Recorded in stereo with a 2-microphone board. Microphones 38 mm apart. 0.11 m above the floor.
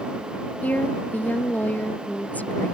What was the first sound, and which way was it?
A woman speaking, 45° left (ahead or behind).